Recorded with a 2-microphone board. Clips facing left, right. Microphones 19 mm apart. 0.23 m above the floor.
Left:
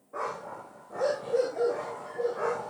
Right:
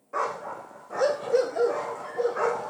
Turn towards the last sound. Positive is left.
turn(degrees=-85)